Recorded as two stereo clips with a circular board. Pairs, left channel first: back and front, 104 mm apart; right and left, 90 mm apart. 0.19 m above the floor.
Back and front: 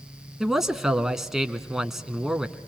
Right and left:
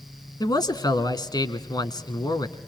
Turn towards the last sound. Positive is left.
turn(degrees=-85)